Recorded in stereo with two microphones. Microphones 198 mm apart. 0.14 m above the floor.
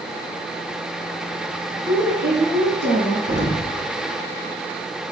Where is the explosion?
80° right, 3 m.